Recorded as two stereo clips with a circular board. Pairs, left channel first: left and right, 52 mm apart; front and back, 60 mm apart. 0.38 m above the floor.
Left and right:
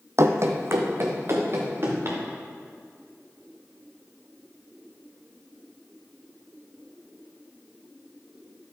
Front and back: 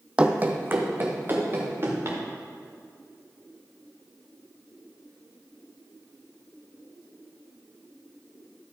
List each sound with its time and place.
0.2 s running footsteps: 110° right, 0.7 m; by 2.2 s 135° right, 3.5 m